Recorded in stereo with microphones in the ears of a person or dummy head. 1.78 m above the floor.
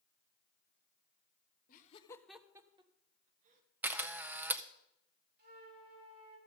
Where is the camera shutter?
10° right (ahead or behind), 0.5 m.